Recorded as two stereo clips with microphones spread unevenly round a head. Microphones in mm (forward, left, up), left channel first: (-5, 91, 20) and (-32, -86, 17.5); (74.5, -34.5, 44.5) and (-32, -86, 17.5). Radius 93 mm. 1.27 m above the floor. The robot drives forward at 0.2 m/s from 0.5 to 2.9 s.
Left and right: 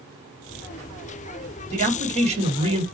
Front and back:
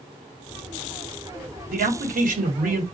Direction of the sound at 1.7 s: 150° right.